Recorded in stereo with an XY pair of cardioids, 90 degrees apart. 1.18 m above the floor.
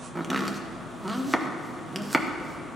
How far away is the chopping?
About 0.8 m.